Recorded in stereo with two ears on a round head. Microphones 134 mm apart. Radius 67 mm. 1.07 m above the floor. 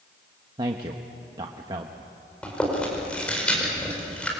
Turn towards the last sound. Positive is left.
turn(degrees=5)  # may be behind; listen again after turning